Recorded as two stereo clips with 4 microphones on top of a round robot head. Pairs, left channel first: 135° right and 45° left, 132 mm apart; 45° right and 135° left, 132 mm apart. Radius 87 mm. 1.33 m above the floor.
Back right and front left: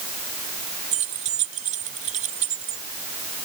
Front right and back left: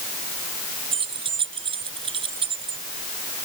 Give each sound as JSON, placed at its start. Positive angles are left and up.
{"t": 0.9, "sound": "keys jangling", "azimuth_deg": 80}